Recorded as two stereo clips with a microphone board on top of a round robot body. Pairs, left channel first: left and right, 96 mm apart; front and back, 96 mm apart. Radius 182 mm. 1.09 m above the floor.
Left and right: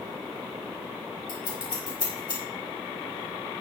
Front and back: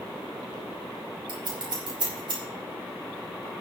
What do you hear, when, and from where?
1.3 s scissors: 135° left, 4.5 m